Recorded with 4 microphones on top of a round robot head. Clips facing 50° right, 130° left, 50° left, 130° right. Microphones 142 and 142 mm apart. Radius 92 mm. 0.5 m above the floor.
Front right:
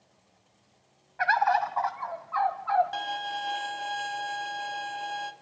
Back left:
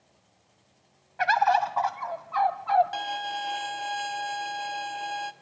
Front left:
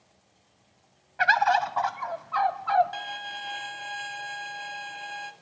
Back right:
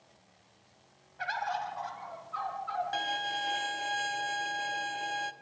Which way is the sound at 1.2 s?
65° left.